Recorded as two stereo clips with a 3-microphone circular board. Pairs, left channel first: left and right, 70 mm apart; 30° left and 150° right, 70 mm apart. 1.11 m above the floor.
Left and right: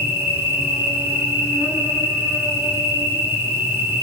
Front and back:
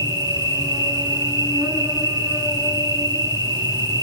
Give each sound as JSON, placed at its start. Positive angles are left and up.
{"t": 0.0, "sound": "an insect", "azimuth_deg": -150, "distance_m": 5.5}